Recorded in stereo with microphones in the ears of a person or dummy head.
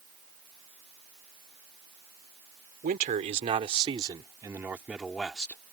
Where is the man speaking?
45° right (ahead or behind); by 5.7 s 10° left (ahead or behind).